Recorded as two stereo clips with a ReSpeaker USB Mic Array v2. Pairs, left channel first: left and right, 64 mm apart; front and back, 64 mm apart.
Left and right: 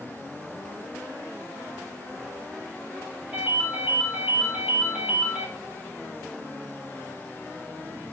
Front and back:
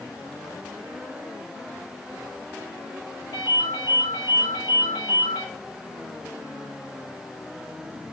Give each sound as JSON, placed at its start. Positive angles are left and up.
{"t": 3.3, "sound": "a ringtone", "azimuth_deg": -20, "distance_m": 4.5}